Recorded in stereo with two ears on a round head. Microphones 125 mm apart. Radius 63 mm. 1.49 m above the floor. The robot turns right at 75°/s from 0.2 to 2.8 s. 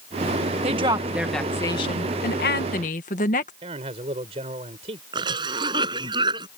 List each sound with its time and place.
0.6 s a woman speaking: 50° right; by 3.5 s 115° left
3.6 s a man speaking: 45° right (ahead or behind)
5.1 s a cough: 35° right (ahead or behind)